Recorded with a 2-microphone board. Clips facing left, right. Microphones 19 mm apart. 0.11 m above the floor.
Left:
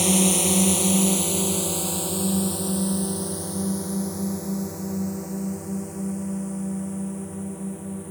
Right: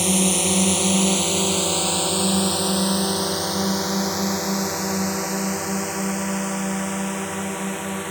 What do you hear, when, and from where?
0.0 s a drone: 5° right (ahead or behind); by 8.1 s 75° right (ahead or behind)